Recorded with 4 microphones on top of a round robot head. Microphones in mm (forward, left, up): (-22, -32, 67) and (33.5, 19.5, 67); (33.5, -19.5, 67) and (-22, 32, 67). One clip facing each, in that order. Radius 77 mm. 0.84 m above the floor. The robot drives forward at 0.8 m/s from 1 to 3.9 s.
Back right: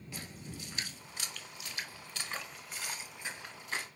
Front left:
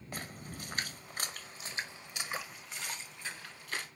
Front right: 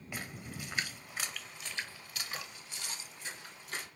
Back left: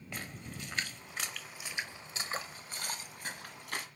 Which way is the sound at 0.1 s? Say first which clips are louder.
Front left 3 dB, front right 1 dB; 35° left.